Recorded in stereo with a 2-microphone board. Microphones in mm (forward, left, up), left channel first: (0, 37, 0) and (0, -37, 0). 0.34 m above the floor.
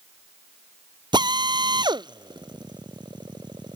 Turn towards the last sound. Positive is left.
turn(degrees=-85)